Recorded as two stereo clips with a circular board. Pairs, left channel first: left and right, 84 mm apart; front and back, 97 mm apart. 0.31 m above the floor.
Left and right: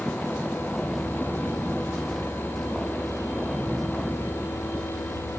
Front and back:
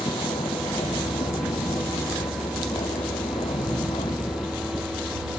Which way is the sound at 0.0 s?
Straight ahead.